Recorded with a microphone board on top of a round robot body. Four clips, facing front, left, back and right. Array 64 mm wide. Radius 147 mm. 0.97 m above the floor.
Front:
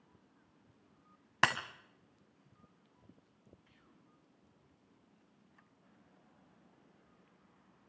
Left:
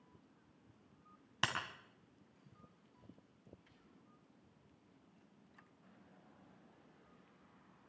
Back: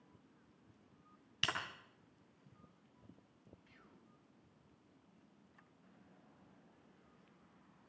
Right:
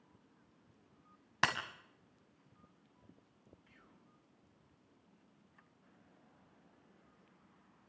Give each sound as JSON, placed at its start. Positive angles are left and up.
{"t": 1.4, "sound": "breaking glass", "azimuth_deg": -20, "distance_m": 2.5}
{"t": 3.7, "sound": "whispering", "azimuth_deg": -130, "distance_m": 5.5}